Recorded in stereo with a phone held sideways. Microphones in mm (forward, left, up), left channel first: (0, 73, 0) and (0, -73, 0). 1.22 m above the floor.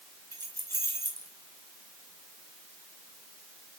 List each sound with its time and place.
0.3 s keys jangling: 75° left (ahead or behind), 4 m